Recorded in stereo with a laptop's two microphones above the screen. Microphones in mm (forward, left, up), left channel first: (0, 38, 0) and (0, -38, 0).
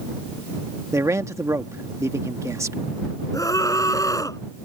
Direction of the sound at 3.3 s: 45° left (ahead or behind).